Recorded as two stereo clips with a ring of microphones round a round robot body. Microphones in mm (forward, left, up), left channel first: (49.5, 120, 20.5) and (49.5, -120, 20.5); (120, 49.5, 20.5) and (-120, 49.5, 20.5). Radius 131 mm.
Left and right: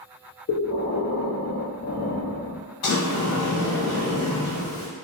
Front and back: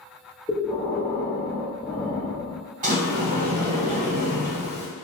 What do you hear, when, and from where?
0.5 s breathing: 75° left, 0.5 m
2.8 s a sliding door: 120° left, 0.9 m